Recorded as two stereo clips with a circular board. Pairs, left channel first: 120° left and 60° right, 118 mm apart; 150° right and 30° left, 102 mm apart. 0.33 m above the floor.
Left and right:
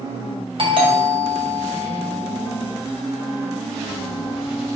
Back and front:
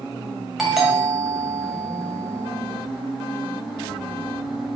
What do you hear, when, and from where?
0.6 s a doorbell: 55° right, 2 m